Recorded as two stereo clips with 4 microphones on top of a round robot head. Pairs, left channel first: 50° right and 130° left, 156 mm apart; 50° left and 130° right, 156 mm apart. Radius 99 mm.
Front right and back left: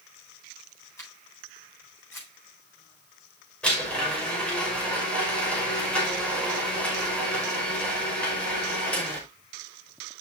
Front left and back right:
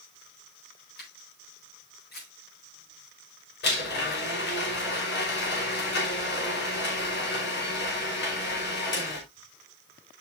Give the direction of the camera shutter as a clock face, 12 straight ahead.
11 o'clock.